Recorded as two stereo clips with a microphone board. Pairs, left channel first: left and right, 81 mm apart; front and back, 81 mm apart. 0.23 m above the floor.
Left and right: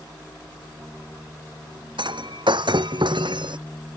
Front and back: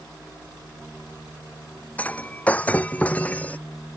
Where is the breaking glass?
70° right.